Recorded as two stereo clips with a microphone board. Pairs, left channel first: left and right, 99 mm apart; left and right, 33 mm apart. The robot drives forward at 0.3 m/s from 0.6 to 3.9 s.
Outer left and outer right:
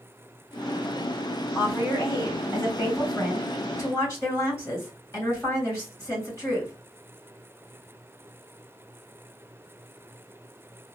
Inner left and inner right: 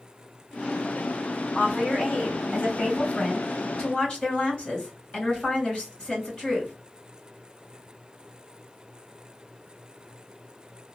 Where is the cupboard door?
No cupboard door in this recording.